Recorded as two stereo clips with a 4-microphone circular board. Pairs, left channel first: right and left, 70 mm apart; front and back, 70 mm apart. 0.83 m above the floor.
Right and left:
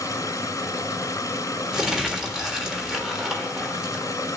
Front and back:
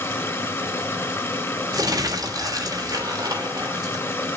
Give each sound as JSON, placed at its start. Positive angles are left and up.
{"t": 0.0, "sound": "running water", "azimuth_deg": -55, "distance_m": 3.0}
{"t": 1.7, "sound": "crumpling", "azimuth_deg": 175, "distance_m": 3.0}